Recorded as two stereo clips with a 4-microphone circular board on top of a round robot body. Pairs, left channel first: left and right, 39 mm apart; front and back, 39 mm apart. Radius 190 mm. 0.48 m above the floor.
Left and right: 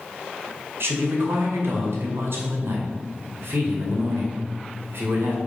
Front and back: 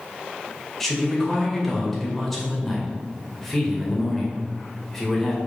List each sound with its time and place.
0.8 s a man speaking: 80° right, 2 m